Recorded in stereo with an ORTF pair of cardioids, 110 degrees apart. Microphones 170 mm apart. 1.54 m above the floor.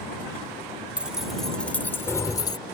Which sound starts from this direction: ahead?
Keys jangling, at 1.0 s.